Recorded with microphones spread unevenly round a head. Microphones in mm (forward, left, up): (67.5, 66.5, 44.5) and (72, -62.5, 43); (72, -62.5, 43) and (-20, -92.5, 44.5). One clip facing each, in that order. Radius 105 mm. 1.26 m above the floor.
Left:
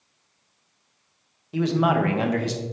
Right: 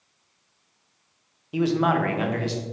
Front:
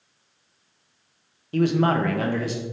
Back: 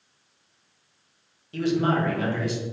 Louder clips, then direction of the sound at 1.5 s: Even, front 3 dB; 15° right.